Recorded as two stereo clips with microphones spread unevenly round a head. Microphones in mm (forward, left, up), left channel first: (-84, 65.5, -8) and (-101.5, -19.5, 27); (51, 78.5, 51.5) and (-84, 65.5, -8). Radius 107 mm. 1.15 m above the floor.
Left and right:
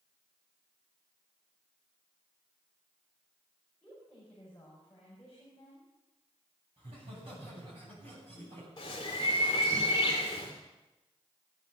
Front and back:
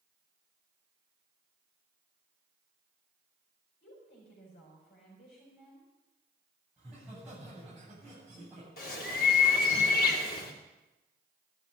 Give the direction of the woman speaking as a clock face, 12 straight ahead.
12 o'clock.